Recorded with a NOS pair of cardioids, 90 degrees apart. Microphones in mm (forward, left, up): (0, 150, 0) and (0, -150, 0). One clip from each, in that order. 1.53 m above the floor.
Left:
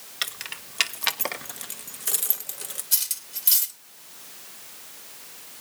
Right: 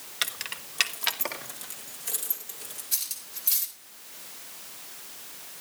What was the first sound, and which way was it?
Keys jangling, 5° right.